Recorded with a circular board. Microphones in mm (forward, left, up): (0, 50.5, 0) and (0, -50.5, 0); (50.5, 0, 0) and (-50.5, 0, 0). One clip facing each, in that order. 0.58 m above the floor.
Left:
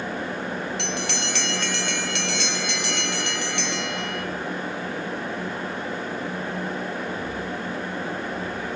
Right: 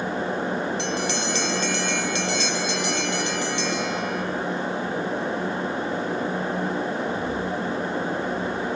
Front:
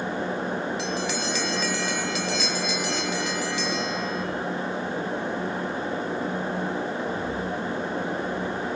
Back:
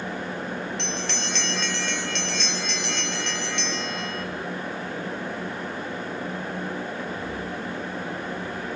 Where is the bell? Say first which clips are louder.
Right 3 dB, front 3 dB; 85° left, 1.5 m.